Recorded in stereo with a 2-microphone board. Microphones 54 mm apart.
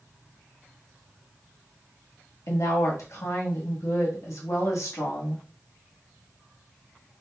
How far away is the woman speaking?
About 1.1 m.